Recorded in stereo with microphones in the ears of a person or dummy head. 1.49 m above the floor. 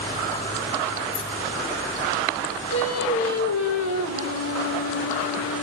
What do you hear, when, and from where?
1.1 s keys jangling: 75° left (ahead or behind), 6 m
2.7 s singing: 80° left, 2.5 m